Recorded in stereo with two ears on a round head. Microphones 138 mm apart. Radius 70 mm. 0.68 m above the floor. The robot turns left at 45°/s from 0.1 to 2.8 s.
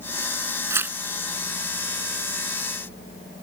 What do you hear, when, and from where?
0.7 s tearing paper: 20° right (ahead or behind); by 1.0 s 5° right (ahead or behind)